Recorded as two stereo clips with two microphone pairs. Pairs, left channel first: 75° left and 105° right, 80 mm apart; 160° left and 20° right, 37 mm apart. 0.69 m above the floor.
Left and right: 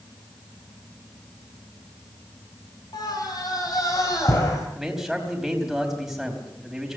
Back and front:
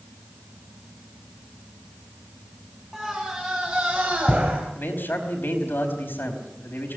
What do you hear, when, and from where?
2.9 s a scream: 60° left, 3 m; by 4.6 s 35° left, 5 m
4.8 s a man speaking: 170° left, 4.5 m